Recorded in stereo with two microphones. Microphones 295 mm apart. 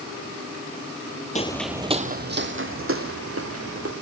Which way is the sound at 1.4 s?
25° left (ahead or behind).